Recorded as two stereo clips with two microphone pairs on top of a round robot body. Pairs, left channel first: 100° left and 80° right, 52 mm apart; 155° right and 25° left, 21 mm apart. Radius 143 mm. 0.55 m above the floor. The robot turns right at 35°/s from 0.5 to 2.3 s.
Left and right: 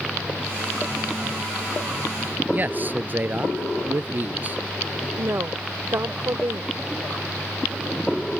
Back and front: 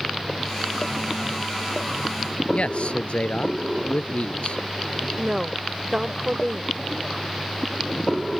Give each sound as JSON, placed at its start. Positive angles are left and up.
{"t": 2.5, "sound": "a man speaking", "azimuth_deg": -135}
{"t": 5.2, "sound": "a woman speaking", "azimuth_deg": -40}